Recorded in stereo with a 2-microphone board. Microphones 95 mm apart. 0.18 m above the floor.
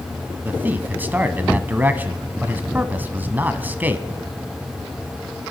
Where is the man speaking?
20° right (ahead or behind), 1.0 m.